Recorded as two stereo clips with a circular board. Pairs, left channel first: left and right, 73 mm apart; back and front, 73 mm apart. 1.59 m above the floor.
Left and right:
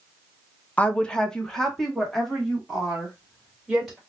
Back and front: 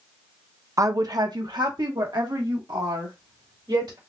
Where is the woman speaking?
25° left, 0.6 m; by 4.0 s straight ahead, 3 m.